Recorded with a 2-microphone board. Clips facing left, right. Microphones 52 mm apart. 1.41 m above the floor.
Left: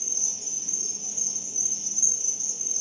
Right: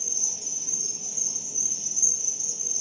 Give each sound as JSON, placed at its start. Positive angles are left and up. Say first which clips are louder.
{"t": 0.0, "sound": "an insect", "louder": "right 1 dB", "side_deg": -70, "distance_m": 1.5}